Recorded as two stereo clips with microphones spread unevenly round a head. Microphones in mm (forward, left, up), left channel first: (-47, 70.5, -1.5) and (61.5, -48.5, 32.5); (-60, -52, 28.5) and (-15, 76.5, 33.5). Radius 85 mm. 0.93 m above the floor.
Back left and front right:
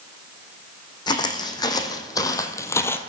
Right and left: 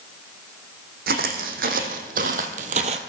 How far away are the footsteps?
About 2.5 m.